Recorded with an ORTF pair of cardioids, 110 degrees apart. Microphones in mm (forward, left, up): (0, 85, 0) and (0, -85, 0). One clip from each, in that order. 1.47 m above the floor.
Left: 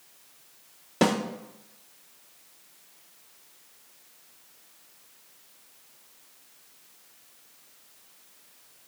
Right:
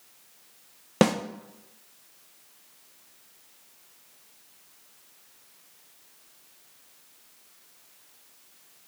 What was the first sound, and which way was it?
A snare drum, 50° right.